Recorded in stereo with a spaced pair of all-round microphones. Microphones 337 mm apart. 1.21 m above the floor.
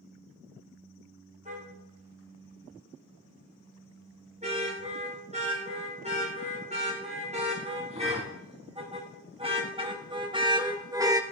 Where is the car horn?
20° right (ahead or behind), 9.5 m; by 11.2 s 10° right (ahead or behind), 1.3 m.